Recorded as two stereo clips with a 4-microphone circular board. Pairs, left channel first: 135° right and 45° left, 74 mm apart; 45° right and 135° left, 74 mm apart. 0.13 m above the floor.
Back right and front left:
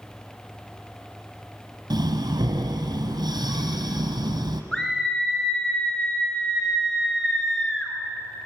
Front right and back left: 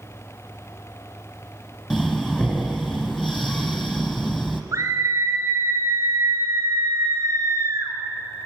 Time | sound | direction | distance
1.9 | breathing | 50° left | 1.1 m
4.7 | a scream | 140° left | 1.4 m